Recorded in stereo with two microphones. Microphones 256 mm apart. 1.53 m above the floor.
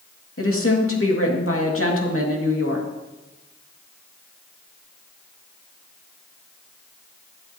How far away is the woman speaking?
About 2.5 m.